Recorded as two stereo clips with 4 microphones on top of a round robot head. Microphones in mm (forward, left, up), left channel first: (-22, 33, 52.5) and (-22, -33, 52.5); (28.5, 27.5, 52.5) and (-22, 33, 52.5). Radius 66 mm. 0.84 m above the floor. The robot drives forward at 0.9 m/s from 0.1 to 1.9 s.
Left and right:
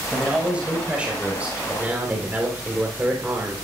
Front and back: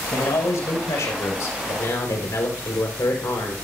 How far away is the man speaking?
About 5 m.